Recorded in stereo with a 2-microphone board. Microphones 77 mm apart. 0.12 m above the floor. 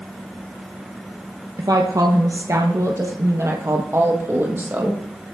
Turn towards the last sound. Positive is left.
turn(degrees=-25)  # may be behind; listen again after turning